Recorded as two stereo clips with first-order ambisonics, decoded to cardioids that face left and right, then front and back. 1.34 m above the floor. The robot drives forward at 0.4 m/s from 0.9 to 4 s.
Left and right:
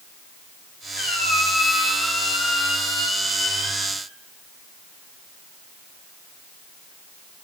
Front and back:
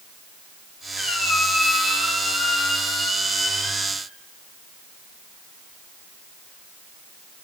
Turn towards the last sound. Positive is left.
turn(degrees=120)